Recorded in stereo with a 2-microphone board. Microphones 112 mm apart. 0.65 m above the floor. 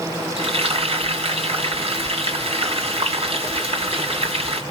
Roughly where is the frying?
Right.